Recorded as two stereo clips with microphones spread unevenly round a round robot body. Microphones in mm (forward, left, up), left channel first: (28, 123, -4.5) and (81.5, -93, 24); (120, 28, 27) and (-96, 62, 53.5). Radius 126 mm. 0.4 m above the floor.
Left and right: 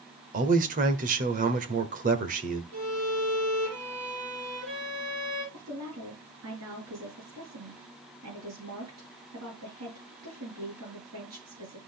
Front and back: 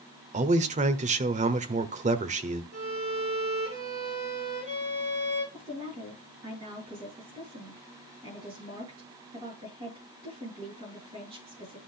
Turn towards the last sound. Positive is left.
turn(degrees=-115)